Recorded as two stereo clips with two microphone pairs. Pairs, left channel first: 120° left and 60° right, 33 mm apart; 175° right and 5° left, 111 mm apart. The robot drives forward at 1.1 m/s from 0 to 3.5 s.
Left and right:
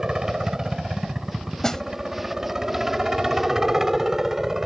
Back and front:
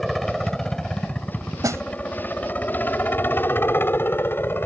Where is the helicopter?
90° right; by 4.7 s 125° right.